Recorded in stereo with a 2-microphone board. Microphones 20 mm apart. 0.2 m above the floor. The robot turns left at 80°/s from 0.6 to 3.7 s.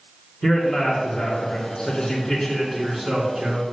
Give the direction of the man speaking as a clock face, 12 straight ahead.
6 o'clock.